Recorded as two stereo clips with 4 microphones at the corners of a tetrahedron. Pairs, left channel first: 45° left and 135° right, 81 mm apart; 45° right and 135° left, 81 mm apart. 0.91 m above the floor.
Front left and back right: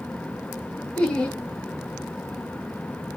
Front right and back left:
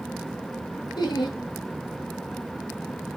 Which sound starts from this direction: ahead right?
Laughter, at 1.0 s.